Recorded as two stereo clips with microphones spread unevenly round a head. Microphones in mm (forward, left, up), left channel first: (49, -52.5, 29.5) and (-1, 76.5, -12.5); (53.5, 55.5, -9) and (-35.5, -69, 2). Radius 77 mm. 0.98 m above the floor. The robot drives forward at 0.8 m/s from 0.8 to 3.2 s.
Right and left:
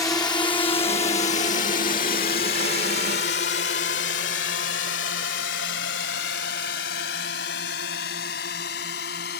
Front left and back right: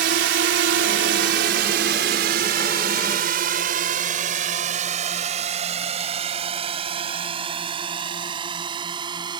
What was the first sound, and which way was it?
A drone, 145° right.